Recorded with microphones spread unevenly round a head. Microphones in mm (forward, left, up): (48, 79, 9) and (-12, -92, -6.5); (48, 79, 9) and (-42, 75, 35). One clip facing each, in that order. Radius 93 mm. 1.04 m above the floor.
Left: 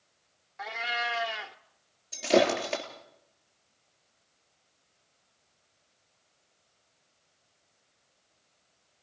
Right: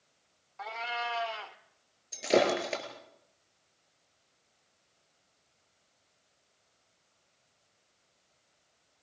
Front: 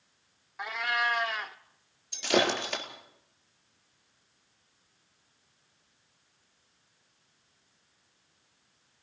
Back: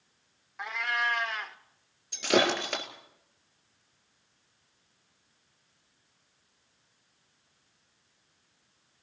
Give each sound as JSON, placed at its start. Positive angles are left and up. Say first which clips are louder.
{"t": 0.6, "sound": "a cat meowing", "louder": "left 2 dB, front 1 dB", "azimuth_deg": 110, "distance_m": 0.7}
{"t": 2.1, "sound": "breaking glass", "louder": "left 2 dB, back 1 dB", "azimuth_deg": 160, "distance_m": 3.0}